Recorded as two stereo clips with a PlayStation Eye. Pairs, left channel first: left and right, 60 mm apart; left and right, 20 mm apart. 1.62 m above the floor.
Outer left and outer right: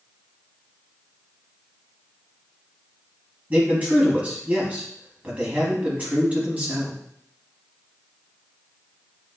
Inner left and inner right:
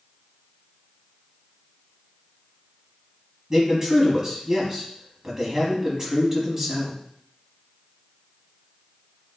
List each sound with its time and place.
3.5 s a man speaking: 25° right (ahead or behind), 3.5 m